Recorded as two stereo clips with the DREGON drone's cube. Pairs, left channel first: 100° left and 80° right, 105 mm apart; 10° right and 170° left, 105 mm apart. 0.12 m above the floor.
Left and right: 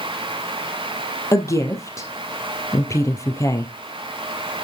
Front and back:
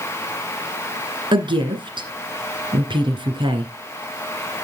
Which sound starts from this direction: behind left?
A woman speaking, at 1.3 s.